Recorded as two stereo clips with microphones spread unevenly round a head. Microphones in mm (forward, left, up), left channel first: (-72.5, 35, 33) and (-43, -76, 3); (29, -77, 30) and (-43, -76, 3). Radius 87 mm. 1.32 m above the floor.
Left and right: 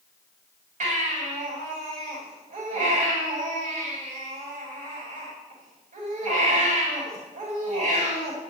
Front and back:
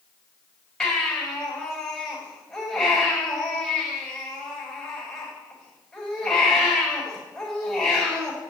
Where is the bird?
I don't hear a bird.